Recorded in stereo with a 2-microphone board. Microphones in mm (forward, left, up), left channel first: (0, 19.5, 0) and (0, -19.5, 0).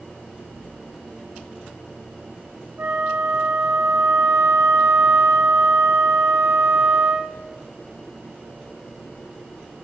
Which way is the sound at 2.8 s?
75° right (ahead or behind).